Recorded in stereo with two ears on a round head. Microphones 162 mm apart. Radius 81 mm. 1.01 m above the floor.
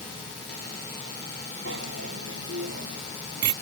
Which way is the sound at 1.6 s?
70° right (ahead or behind).